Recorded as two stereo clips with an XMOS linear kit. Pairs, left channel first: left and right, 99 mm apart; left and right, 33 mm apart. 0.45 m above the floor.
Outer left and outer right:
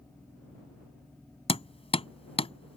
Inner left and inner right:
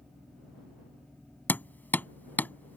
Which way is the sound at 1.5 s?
75° left (ahead or behind).